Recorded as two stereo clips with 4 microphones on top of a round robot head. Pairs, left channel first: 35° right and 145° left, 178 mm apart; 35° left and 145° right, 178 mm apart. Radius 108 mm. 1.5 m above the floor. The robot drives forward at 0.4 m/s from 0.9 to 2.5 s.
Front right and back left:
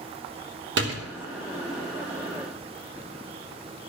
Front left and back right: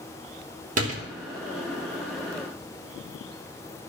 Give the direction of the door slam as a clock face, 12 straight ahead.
6 o'clock.